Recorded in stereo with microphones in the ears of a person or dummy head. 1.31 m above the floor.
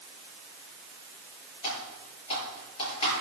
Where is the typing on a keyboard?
25° left (ahead or behind), 6 m.